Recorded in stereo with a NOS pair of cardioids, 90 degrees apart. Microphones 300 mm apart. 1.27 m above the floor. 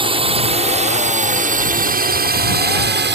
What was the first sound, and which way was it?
A drone, 15° right.